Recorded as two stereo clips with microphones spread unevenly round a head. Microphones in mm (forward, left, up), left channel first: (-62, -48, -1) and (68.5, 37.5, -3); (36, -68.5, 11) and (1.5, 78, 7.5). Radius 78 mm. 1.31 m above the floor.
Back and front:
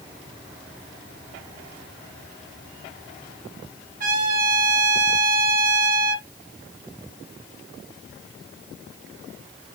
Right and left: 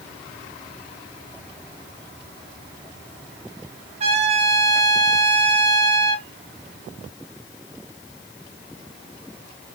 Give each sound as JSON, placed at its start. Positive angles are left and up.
{"t": 4.0, "sound": "a trumpet", "azimuth_deg": 60, "distance_m": 1.7}